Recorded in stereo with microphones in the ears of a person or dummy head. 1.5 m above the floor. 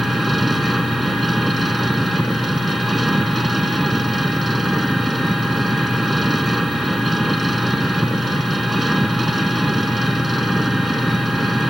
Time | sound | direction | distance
0.0 | an engine running | centre (ahead or behind) | ?